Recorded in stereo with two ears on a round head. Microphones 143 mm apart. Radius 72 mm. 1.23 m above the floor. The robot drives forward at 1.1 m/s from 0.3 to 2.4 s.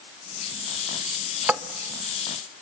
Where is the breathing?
I don't hear breathing.